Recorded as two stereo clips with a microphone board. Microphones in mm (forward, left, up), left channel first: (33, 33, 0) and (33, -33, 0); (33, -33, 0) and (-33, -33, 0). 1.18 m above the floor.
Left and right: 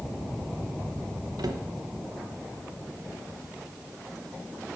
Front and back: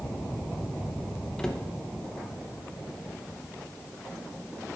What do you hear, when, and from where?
1.4 s a cupboard door: 80° right, 0.9 m